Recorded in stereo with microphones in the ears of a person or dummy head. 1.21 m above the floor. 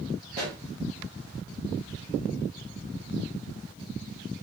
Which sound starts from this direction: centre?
A pop, at 0.3 s.